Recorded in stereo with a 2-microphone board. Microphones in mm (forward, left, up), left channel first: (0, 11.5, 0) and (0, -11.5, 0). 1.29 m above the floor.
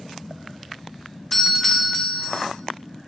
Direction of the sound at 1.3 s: 10° left (ahead or behind).